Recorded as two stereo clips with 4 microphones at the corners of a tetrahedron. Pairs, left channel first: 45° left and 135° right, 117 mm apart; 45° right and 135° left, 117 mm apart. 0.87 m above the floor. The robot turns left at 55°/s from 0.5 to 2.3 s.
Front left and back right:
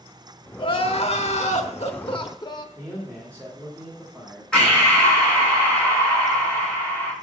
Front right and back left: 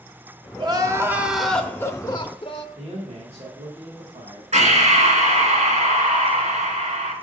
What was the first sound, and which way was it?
Crying, 90° left.